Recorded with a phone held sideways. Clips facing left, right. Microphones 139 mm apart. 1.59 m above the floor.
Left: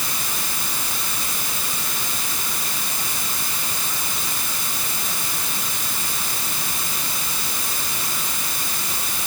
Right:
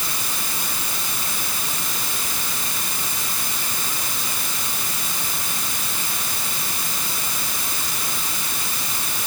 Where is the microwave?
No microwave in this recording.